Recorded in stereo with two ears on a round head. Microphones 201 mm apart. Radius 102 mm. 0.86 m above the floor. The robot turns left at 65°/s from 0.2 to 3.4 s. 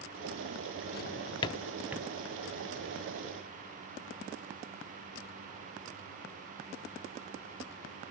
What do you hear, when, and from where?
0.9 s a drawer: 45° left (ahead or behind), 0.5 m; by 2.1 s 15° right (ahead or behind), 0.5 m